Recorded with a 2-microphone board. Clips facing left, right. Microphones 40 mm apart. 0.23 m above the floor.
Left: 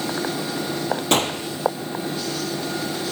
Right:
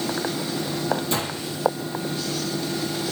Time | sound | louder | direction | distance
1.1 | a gunshot | left 6 dB | 60° left (ahead or behind) | 1.3 m